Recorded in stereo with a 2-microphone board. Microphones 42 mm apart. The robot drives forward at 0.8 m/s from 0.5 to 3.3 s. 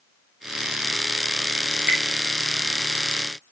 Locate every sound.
1.7 s dripping: 35° right (ahead or behind), 6 m